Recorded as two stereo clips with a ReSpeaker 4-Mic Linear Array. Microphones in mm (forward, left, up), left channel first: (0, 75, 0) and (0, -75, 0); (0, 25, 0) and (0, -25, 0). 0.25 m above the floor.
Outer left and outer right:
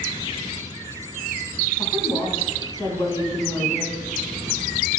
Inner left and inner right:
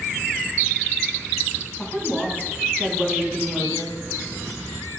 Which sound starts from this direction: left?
A woman speaking, at 1.8 s.